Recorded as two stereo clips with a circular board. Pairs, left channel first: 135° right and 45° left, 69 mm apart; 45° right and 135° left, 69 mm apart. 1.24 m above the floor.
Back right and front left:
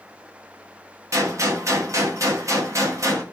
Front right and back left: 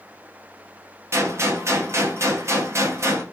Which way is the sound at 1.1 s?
85° left.